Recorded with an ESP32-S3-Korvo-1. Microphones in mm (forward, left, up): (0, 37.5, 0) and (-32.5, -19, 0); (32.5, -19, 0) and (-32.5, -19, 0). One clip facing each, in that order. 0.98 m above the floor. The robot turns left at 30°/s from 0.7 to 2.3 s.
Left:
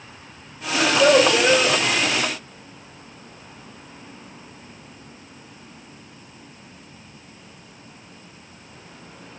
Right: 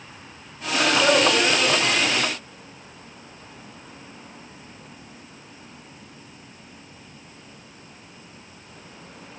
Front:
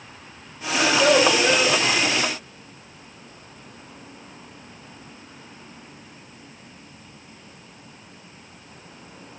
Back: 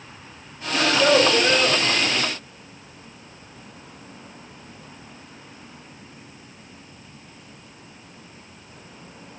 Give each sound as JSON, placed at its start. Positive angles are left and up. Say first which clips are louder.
{"t": 0.7, "sound": "a child speaking", "louder": "left 3 dB, even", "azimuth_deg": 100, "distance_m": 2.5}